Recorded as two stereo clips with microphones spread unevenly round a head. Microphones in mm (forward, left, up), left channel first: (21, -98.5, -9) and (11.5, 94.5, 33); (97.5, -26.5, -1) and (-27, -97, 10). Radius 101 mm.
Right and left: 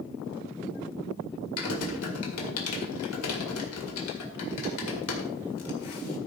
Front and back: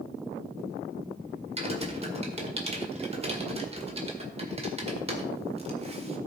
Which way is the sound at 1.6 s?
110° right.